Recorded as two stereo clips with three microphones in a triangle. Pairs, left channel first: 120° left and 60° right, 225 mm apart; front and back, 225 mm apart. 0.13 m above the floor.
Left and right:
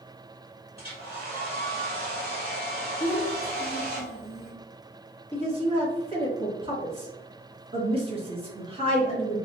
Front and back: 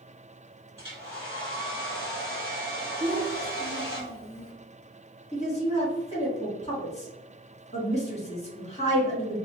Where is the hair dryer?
105° right, 1.9 m.